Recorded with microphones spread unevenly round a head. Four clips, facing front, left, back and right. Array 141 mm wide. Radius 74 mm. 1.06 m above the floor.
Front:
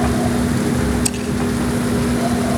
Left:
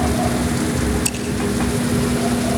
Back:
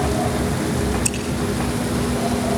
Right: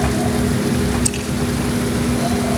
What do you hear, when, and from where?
1.1 s scissors: 5° right, 10 m